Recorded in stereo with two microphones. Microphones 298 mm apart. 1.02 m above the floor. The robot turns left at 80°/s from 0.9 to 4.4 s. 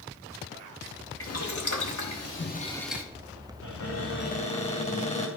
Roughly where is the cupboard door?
Left.